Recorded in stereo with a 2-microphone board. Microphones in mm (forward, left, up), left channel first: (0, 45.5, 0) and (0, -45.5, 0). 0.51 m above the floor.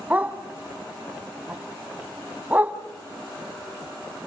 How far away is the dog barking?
About 1.6 m.